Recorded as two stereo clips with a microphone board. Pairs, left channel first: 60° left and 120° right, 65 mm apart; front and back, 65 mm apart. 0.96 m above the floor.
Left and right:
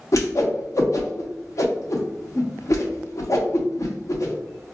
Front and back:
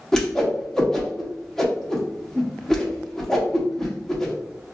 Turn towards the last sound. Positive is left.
turn(degrees=80)